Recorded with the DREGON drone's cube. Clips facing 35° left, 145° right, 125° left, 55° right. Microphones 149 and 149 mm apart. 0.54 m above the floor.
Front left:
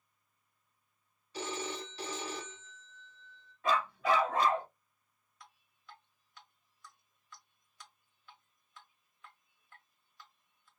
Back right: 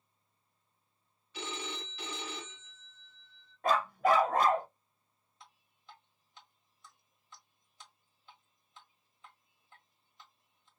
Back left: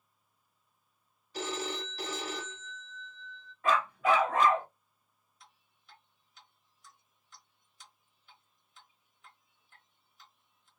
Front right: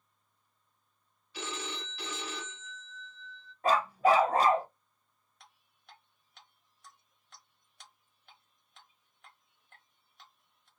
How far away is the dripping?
About 1.2 m.